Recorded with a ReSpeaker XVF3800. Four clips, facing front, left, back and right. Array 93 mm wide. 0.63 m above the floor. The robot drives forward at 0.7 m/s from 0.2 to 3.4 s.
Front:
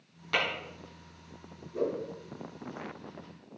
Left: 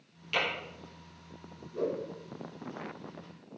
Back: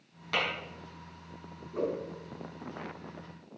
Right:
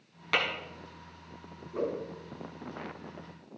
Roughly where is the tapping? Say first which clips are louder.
Right 2 dB, front 1 dB; right.